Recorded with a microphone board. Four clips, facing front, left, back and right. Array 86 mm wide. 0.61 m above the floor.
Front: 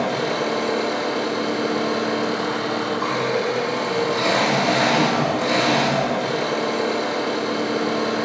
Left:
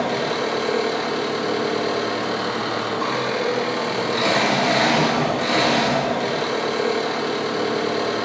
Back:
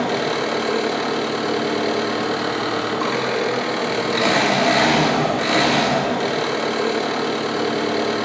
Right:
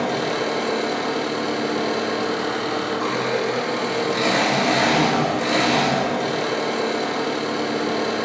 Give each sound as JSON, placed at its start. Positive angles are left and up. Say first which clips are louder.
{"t": 0.0, "sound": "an engine running", "louder": "even, back 1 dB", "azimuth_deg": 175, "distance_m": 0.8}